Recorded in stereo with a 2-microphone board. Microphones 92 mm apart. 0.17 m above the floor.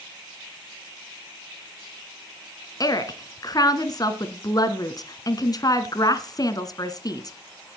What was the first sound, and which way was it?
A woman speaking, 45° left (ahead or behind).